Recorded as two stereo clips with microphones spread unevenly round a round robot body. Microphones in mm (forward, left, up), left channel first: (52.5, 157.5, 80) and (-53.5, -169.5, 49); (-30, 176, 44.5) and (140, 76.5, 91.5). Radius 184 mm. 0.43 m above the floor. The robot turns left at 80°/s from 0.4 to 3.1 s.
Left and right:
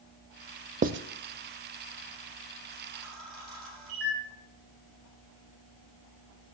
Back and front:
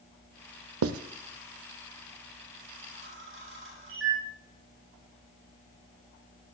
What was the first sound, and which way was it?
Writing, 40° right.